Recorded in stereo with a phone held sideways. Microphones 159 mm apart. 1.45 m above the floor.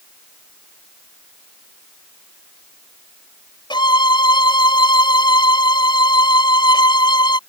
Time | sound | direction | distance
3.7 | a violin | 30° left (ahead or behind) | ?